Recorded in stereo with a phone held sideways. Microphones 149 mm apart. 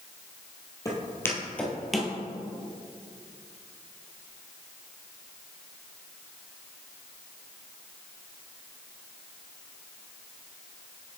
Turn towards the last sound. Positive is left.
turn(degrees=-5)  # may be behind; listen again after turning